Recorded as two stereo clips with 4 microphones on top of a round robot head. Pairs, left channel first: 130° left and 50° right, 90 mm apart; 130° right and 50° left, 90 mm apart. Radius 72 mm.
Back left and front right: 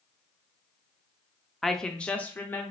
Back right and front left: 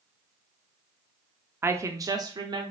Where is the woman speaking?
45° left, 0.8 m; by 2.7 s 70° left, 1.3 m.